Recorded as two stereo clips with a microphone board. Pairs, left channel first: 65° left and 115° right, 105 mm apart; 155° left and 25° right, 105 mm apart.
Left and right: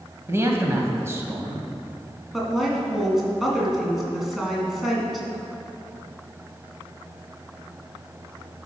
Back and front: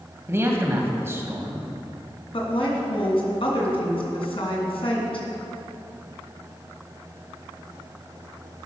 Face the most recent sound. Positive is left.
turn(degrees=160)